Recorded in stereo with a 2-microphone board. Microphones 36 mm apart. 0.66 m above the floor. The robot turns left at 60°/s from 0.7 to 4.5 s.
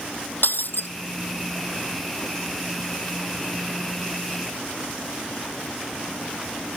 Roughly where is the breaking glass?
Left.